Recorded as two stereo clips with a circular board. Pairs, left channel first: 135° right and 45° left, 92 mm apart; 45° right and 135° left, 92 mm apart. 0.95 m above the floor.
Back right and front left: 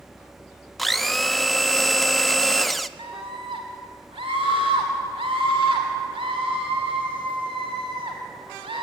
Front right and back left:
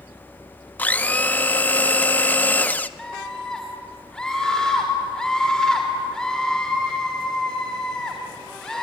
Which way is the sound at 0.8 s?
45° right.